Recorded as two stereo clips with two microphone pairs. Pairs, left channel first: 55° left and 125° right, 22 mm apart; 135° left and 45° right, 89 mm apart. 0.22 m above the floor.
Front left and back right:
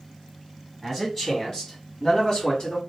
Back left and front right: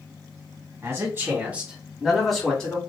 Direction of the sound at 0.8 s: 20° right.